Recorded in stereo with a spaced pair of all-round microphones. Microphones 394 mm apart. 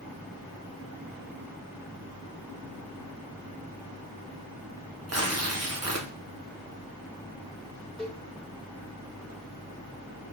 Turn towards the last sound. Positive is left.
turn(degrees=0)  # may be behind; listen again after turning